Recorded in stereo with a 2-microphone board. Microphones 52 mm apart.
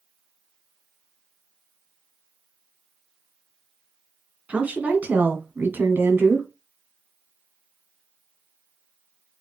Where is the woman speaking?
30° right (ahead or behind), 2 m; by 6.5 s 60° right (ahead or behind), 1.7 m.